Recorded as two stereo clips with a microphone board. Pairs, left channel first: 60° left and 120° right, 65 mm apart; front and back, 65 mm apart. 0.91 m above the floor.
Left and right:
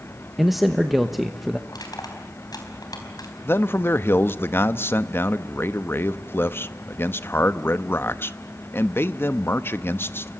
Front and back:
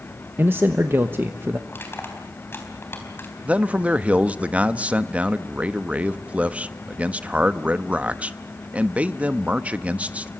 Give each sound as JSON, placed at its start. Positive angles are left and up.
{"t": 0.4, "sound": "a man speaking", "azimuth_deg": 150, "distance_m": 1.1}
{"t": 1.7, "sound": "crushing", "azimuth_deg": 55, "distance_m": 4.5}
{"t": 3.5, "sound": "a man speaking", "azimuth_deg": 110, "distance_m": 0.9}